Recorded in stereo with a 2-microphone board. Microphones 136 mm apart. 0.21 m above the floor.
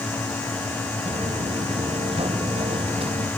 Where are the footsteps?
50° right (ahead or behind); by 3.3 s 45° right (ahead or behind).